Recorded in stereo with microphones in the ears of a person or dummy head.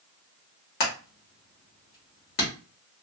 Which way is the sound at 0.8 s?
50° left (ahead or behind).